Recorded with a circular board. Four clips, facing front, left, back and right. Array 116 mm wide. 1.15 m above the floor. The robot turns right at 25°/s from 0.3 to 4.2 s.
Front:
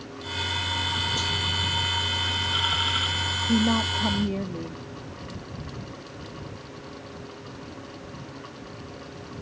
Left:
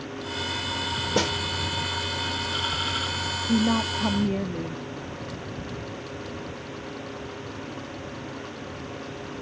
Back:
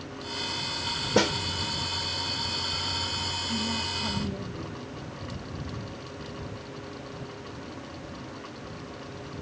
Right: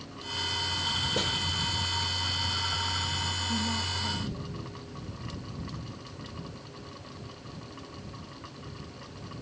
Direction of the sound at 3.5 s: 40° left.